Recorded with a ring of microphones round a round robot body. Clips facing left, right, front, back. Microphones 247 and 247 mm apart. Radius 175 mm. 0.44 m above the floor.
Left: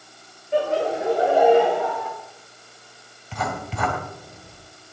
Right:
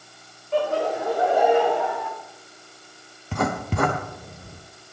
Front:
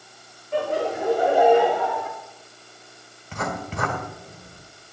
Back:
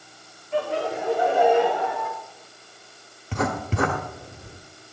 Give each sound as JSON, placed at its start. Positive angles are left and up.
{"t": 0.5, "sound": "laughter", "azimuth_deg": 20, "distance_m": 1.8}
{"t": 3.3, "sound": "writing", "azimuth_deg": -125, "distance_m": 1.1}